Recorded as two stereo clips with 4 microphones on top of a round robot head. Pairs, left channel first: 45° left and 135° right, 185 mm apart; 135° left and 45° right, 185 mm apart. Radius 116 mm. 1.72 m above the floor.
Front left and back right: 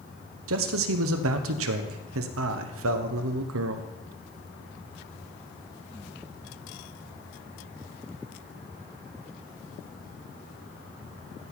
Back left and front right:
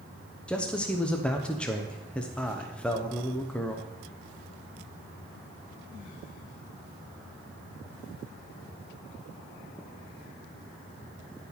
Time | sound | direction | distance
0.5 | a man speaking | 140° right | 1.0 m